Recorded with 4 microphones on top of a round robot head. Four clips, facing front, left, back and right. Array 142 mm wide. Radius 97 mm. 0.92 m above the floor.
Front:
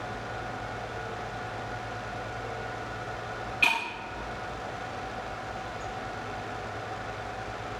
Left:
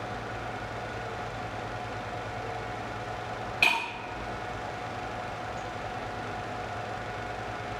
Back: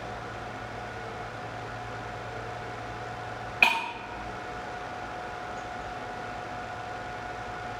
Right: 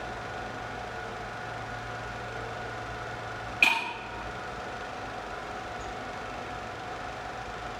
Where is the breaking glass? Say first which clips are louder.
Even, back 3 dB; 170° left, 3.5 m.